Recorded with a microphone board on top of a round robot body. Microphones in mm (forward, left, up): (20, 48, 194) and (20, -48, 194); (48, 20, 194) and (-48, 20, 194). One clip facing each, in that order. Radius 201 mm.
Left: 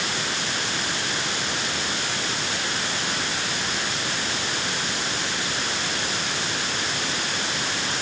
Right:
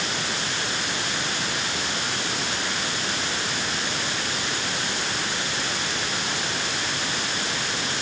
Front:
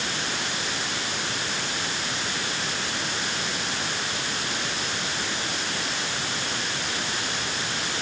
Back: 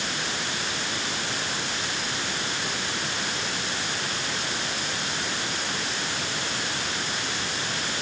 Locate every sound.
Only background noise.